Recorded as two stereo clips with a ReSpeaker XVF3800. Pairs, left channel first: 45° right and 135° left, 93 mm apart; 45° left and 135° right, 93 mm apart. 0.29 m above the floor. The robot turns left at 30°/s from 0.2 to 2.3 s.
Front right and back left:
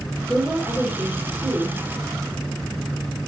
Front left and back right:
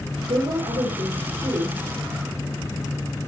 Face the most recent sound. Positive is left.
turn(degrees=160)